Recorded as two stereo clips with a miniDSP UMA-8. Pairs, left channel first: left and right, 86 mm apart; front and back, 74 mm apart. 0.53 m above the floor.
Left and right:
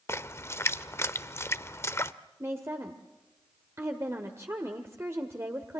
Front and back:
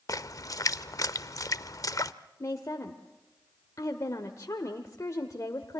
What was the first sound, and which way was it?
A splash, 35° left.